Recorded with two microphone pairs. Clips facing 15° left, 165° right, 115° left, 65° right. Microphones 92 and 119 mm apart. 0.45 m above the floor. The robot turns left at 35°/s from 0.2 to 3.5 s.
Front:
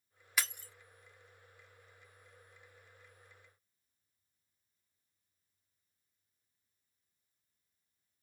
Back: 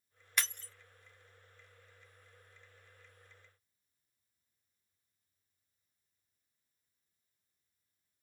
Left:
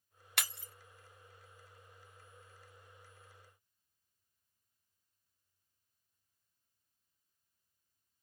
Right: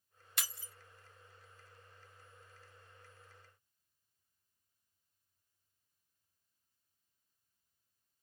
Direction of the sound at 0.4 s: 100° left.